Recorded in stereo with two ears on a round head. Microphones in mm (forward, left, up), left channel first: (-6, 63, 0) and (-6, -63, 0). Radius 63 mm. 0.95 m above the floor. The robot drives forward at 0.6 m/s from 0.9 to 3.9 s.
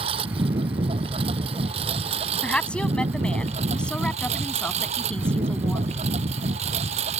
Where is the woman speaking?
5° left (ahead or behind).